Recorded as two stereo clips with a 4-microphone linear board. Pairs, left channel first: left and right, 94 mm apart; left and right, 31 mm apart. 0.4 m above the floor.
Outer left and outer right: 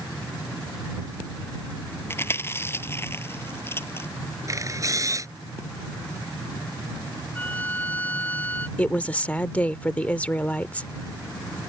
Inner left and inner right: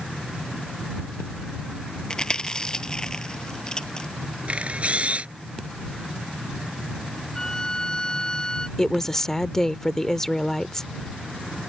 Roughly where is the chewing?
Left.